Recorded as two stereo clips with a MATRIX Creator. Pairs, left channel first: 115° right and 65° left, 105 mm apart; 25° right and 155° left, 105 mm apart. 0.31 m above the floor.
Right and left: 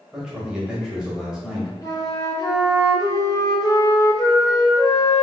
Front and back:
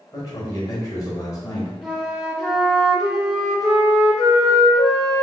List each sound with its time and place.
0.1 s a man speaking: 10° right, 1.0 m
1.8 s a flute: 120° right, 0.6 m